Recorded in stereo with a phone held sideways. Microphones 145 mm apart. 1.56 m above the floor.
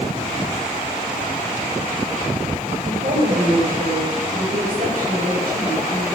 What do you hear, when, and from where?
2.9 s a woman speaking: 80° right, 4.5 m